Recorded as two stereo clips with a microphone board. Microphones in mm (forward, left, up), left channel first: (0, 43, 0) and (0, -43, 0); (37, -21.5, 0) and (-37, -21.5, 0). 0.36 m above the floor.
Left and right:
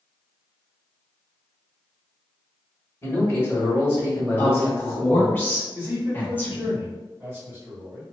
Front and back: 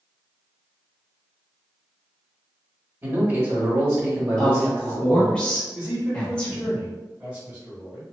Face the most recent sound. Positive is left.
turn(degrees=-125)